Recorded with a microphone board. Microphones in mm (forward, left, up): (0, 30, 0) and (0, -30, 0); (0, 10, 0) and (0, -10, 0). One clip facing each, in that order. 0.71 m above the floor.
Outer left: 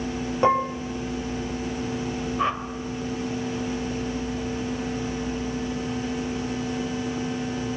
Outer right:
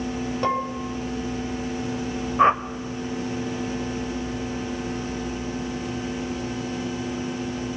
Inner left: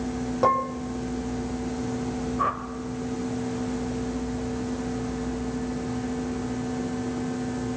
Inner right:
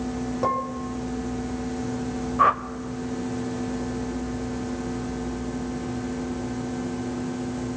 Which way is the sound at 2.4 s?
35° right (ahead or behind).